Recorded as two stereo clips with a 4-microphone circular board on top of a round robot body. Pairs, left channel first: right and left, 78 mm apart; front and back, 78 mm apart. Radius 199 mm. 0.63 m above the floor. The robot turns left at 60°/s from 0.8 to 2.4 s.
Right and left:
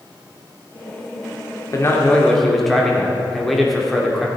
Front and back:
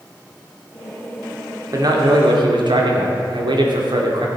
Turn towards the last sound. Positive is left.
turn(degrees=180)